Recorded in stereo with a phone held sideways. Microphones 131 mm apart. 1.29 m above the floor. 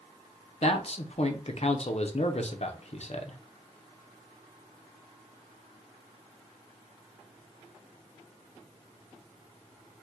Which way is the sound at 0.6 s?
55° left (ahead or behind).